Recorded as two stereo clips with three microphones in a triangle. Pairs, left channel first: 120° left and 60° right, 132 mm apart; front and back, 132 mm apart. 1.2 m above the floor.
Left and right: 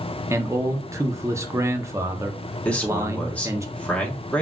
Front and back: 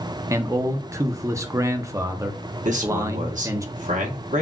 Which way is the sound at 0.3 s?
120° right.